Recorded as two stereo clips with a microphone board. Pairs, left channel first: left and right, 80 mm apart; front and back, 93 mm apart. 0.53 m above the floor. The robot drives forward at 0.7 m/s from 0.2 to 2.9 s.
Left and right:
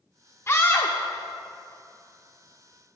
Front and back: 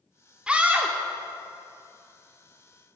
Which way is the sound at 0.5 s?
110° left.